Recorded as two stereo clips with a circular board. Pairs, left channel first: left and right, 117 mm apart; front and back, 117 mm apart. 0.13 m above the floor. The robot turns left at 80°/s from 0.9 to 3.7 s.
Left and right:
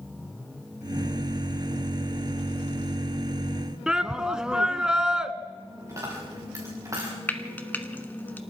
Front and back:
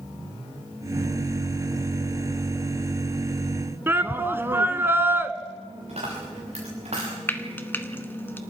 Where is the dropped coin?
155° right, 8 m.